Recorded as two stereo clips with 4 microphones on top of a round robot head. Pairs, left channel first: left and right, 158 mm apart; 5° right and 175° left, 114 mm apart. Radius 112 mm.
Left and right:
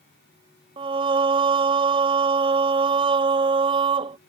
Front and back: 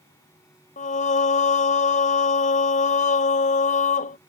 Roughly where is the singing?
Ahead right.